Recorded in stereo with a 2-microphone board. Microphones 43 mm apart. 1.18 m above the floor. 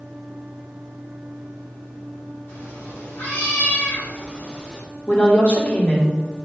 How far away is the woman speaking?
About 3 m.